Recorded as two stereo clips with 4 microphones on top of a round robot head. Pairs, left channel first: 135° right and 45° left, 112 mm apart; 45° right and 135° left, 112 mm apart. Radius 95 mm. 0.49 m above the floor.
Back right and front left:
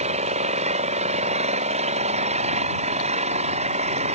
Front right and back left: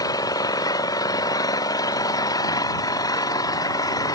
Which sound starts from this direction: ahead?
An engine running, at 0.0 s.